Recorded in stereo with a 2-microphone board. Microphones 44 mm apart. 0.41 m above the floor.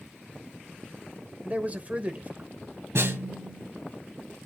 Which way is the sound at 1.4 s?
35° right (ahead or behind).